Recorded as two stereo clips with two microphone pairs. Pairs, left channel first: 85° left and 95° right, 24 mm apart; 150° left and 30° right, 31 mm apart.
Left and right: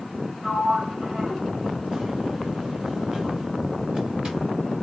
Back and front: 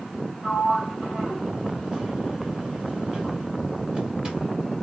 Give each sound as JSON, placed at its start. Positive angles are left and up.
{"t": 0.4, "sound": "a sliding door", "azimuth_deg": -70, "distance_m": 1.7}